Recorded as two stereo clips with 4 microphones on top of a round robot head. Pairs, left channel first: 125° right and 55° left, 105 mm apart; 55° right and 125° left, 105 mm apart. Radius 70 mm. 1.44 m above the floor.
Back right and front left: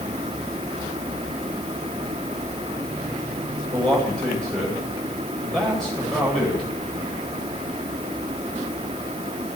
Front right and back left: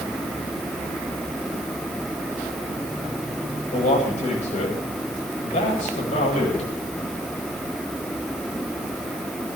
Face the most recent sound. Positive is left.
turn(degrees=-40)